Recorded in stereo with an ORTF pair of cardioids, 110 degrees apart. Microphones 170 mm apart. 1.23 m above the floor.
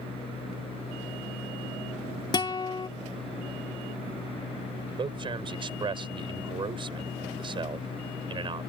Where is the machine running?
35° left.